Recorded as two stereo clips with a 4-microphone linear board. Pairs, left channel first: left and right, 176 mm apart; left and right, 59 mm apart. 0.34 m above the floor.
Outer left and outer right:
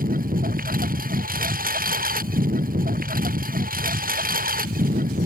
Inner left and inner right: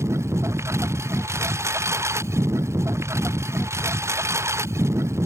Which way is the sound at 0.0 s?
55° right (ahead or behind).